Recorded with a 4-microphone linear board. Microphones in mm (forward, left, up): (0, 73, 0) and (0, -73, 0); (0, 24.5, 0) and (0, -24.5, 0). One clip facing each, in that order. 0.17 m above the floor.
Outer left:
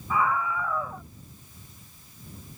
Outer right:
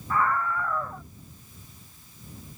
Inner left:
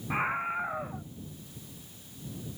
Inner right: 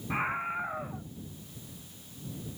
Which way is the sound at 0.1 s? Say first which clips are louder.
Even, inner left 1 dB; 5° left (ahead or behind).